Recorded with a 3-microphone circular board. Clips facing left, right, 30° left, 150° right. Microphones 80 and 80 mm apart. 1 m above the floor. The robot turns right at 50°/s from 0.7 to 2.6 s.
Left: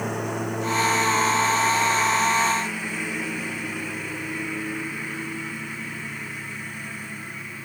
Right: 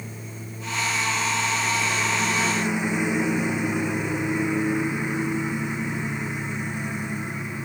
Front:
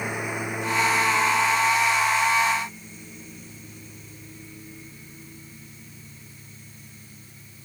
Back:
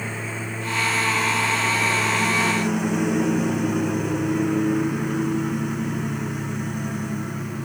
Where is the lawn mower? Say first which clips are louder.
Left 11 dB, front 1 dB; 105° left; by 7.7 s 160° right.